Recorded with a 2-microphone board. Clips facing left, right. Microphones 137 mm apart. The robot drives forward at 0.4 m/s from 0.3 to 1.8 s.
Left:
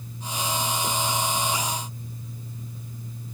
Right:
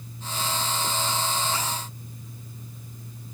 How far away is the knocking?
I don't hear knocking.